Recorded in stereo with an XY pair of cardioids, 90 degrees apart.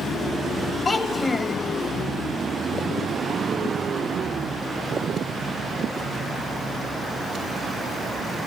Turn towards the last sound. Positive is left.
turn(degrees=35)